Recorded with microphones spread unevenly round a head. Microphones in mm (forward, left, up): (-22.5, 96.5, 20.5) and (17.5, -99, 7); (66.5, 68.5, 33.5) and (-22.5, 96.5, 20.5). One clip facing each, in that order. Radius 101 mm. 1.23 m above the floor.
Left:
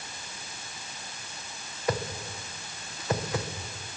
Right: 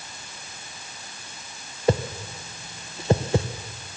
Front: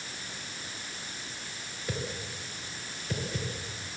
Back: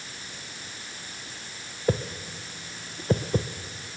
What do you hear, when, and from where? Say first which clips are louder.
1.9 s a whoosh: right 7 dB, back 9 dB; 140° right, 1.0 m